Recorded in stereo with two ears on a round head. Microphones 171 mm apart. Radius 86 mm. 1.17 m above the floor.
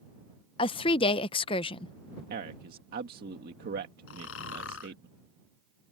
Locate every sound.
0.6 s a woman speaking: 25° left (ahead or behind)
2.3 s a man speaking: 55° right (ahead or behind)
4.1 s snoring: 75° left (ahead or behind)